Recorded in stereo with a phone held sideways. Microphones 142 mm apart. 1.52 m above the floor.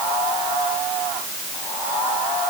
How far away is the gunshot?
No gunshot in this recording.